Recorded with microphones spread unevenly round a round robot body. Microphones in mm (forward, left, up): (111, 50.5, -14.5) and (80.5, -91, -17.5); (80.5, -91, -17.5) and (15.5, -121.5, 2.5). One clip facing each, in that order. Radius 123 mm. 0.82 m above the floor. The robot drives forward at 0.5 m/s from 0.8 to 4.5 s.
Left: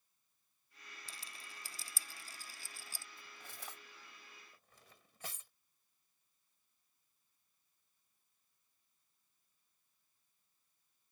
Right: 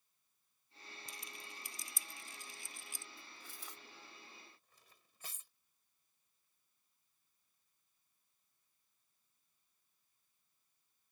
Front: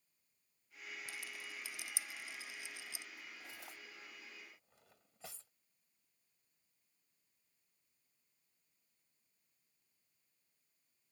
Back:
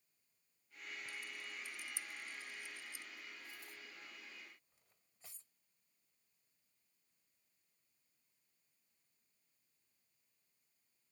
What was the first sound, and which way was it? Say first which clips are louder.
A rattle: right 2 dB, even; 20° left.